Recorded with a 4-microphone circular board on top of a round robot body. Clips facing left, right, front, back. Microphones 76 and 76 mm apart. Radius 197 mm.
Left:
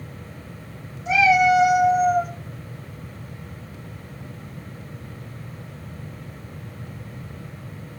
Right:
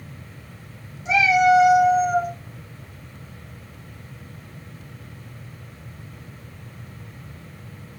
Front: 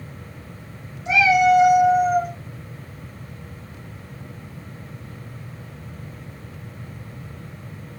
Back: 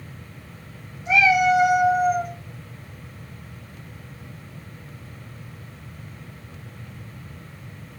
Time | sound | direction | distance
1.1 | a cat meowing | 75° right | 1.9 m